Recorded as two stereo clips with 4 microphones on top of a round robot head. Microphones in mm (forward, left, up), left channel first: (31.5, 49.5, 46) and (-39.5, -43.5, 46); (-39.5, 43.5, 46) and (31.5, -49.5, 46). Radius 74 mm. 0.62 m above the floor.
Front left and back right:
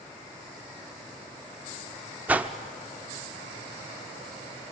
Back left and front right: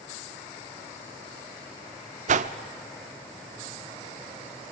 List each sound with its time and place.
2.3 s a whoosh: 50° right, 0.8 m